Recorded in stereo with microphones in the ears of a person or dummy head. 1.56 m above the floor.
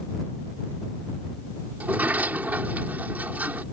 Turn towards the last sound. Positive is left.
turn(degrees=-10)  # may be behind; listen again after turning